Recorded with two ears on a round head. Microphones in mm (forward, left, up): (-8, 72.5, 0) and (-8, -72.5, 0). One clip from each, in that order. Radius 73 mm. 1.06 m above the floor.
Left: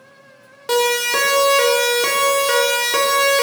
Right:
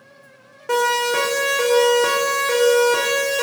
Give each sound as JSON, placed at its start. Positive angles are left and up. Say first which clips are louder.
{"t": 0.7, "sound": "a siren", "louder": "left 1 dB", "side_deg": 65, "distance_m": 4.0}